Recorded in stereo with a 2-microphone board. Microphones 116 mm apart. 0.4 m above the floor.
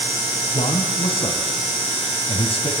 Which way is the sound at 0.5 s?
55° left (ahead or behind).